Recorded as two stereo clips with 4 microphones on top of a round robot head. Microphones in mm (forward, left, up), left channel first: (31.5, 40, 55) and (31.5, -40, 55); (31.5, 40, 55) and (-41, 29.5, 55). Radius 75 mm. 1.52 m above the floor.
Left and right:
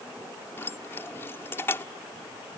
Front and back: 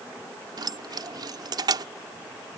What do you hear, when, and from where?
0.6 s keys jangling: 160° left